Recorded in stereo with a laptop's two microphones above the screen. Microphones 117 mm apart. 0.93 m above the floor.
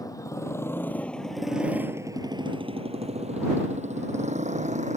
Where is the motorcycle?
30° left (ahead or behind); by 5.0 s 90° right.